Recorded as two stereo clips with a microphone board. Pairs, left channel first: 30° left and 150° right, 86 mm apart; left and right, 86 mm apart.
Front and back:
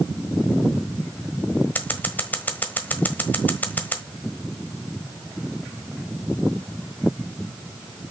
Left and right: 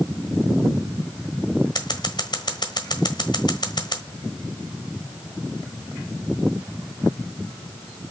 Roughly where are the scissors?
Left.